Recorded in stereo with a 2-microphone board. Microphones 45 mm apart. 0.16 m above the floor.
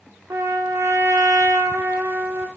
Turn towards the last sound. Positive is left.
turn(degrees=-80)